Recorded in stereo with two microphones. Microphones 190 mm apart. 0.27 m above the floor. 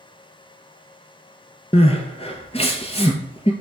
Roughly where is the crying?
Left.